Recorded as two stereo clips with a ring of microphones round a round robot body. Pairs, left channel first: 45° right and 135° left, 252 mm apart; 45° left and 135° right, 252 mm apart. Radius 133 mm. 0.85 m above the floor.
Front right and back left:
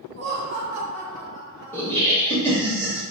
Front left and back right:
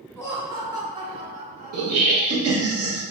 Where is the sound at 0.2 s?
140° left, 1.2 m; by 2.0 s 75° right, 1.5 m.